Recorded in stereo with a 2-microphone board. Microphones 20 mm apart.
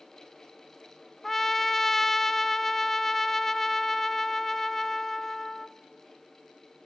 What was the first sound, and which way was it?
A trumpet, 15° left (ahead or behind).